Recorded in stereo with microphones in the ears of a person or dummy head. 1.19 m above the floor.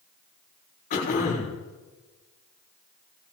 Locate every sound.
0.9 s throat clearing: 55° left (ahead or behind), 10 m